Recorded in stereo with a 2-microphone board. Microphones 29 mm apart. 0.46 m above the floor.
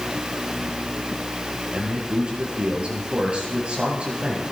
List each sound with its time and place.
1.7 s a man speaking: 45° right (ahead or behind), 7.5 m